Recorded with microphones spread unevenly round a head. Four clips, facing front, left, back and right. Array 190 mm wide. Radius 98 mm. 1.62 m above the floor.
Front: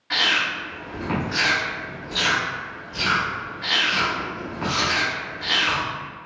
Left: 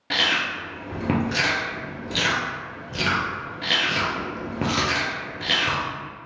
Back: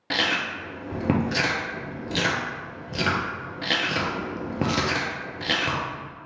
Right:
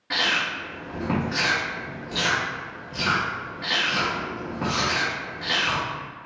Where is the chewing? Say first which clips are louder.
Left 1 dB, front 2 dB; 150° left, 0.5 m.